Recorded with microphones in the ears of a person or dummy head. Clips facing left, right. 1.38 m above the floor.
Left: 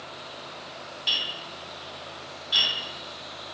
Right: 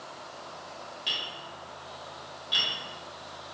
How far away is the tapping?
About 1.1 m.